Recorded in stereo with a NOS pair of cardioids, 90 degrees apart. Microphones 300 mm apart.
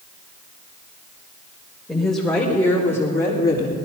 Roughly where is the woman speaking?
Ahead.